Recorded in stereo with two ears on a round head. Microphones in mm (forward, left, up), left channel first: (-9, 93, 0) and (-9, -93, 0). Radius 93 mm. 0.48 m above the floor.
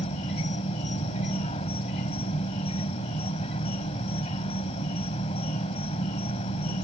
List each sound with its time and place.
0.0 s an insect: 30° left (ahead or behind)